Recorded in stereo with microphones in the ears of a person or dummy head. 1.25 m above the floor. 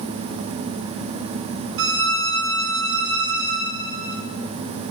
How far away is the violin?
About 0.9 m.